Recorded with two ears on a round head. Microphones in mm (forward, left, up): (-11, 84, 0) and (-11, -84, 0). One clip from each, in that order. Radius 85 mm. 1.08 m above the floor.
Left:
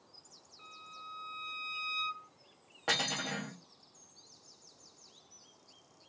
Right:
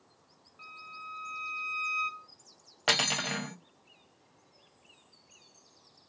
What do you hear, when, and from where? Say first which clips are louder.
0.6 s a violin: right 5 dB; 30° right (ahead or behind), 2.0 m
2.9 s cutlery clinking: right 5 dB; 70° right (ahead or behind), 0.6 m